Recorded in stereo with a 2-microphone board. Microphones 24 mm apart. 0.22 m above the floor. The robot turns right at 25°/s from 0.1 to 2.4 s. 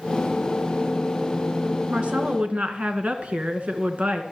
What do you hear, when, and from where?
1.9 s a woman speaking: 50° right (ahead or behind), 2 m; by 4.2 s 60° right (ahead or behind), 2 m